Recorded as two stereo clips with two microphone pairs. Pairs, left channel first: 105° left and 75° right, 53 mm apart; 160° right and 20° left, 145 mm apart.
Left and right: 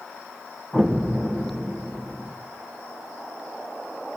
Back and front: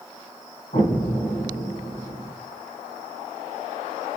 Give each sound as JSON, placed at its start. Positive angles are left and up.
{"t": 0.7, "sound": "an explosion", "azimuth_deg": 175, "distance_m": 3.0}